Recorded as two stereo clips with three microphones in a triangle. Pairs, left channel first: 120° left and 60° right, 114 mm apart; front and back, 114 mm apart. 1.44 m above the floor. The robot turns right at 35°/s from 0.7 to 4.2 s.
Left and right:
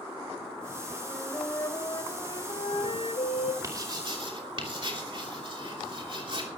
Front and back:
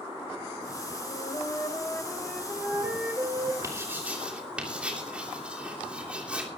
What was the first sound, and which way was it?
A flute, 40° left.